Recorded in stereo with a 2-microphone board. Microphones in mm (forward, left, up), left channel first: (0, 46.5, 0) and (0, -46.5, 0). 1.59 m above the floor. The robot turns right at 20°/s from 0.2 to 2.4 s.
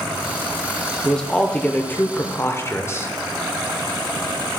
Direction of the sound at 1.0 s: 5° left (ahead or behind).